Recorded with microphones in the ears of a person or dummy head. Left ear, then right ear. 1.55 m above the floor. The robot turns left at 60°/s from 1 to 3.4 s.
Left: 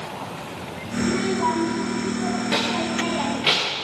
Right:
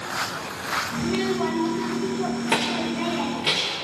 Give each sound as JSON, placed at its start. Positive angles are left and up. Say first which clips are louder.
{"t": 1.0, "sound": "a child speaking", "louder": "left 2 dB", "azimuth_deg": -50, "distance_m": 1.7}